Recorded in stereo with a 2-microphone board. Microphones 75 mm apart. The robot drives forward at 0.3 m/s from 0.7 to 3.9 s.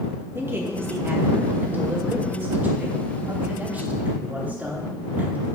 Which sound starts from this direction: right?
A man speaking, at 0.3 s.